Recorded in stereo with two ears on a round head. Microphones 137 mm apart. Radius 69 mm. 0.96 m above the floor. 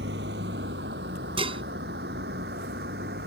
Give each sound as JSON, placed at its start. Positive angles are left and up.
{"t": 0.0, "sound": "a vehicle", "side_deg": -85}
{"t": 1.4, "sound": "dishes clattering", "side_deg": -35}